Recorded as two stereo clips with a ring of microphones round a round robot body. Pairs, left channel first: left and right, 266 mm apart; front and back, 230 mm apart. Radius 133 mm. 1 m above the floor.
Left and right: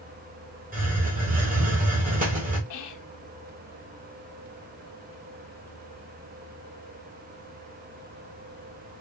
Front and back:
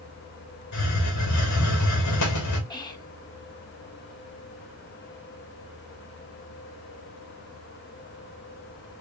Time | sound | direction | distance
0.7 | a hiss | 30° right | 2.0 m
2.7 | whispering | 70° left | 1.4 m